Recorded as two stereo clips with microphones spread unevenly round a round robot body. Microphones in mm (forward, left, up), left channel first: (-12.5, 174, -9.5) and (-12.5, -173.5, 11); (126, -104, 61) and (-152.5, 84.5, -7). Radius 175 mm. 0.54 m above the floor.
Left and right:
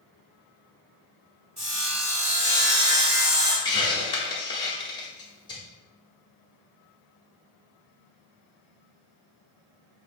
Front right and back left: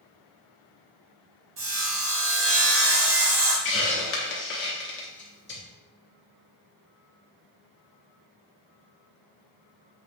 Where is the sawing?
160° right, 2 m.